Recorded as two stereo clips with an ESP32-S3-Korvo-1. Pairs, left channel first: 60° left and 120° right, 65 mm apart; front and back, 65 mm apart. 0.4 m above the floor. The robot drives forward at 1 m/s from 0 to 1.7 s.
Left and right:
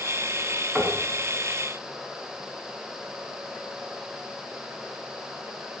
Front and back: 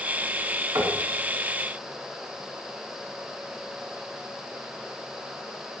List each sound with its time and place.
0.8 s knocking: 160° left, 2.5 m; by 1.0 s 165° left, 2.5 m